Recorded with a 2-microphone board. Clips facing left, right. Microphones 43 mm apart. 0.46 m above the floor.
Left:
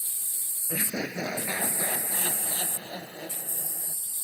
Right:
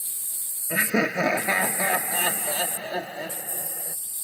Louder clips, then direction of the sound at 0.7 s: Right 9 dB; 75° right (ahead or behind).